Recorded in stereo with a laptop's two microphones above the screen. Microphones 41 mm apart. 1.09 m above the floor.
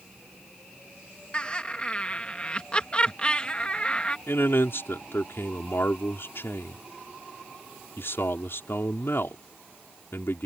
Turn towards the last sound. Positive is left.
turn(degrees=65)  # may be behind; listen again after turning